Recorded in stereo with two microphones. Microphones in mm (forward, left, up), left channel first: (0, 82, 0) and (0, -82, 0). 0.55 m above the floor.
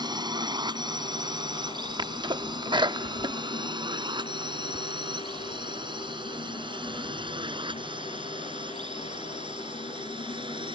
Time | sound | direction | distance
0.0 | a drone | 25° right (ahead or behind) | ?
2.0 | a sneeze | 30° right (ahead or behind) | ?